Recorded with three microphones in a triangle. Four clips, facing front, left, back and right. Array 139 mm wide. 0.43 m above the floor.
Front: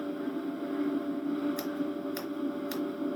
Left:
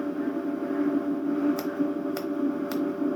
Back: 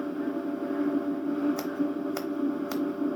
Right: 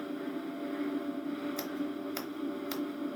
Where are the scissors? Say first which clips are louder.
Left 9 dB, back 4 dB; 150° left, 0.8 m.